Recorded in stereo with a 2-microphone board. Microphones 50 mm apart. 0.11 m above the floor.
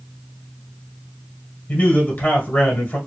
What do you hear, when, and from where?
1.7 s a man speaking: 35° left (ahead or behind), 1.5 m